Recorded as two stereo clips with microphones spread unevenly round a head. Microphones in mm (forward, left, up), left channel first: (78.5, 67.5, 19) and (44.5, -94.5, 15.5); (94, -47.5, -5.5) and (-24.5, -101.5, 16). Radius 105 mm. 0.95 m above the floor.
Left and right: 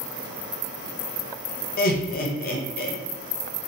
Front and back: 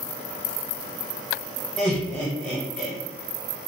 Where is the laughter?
105° left, 0.8 m.